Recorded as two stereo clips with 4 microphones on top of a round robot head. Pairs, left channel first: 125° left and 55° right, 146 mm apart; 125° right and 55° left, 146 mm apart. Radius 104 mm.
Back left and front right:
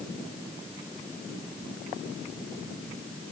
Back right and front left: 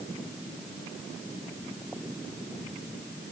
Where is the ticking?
No ticking in this recording.